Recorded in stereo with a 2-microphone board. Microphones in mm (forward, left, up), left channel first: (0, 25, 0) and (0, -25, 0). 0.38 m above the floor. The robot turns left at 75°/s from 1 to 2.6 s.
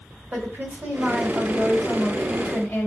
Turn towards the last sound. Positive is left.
turn(degrees=125)